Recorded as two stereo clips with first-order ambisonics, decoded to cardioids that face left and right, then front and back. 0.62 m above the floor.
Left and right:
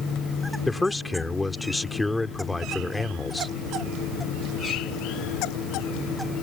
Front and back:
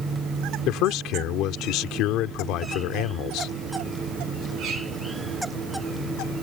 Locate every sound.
0.7 s a man speaking: 10° left